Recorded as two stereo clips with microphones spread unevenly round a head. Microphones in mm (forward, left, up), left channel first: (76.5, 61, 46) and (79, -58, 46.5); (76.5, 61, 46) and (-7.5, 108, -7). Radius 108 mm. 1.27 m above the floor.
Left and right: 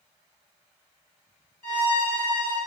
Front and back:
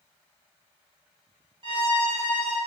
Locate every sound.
1.6 s a violin: 100° left, 1.9 m